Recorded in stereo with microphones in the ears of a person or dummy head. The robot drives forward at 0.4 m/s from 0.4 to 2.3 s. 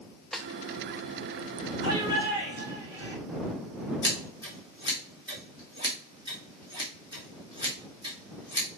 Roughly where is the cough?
I don't hear a cough.